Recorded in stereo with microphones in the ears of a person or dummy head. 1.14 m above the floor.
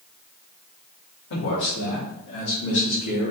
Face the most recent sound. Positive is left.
turn(degrees=75)  # may be behind; listen again after turning